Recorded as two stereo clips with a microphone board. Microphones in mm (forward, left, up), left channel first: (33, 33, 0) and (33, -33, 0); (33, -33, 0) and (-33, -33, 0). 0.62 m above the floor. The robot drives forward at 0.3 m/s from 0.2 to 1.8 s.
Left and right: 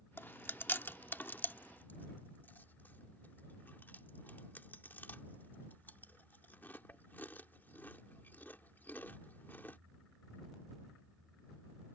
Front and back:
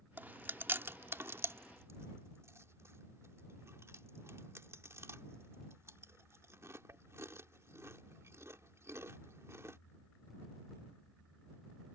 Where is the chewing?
130° left; by 9.8 s 145° left.